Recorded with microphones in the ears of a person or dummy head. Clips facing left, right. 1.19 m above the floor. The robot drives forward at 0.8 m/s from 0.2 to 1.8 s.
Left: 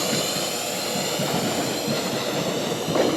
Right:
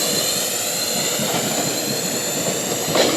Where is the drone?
20° right (ahead or behind); by 3.2 s 25° right (ahead or behind).